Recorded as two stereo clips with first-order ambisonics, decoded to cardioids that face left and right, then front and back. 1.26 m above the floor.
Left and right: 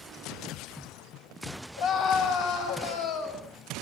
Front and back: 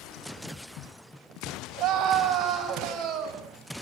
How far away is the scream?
About 7.5 m.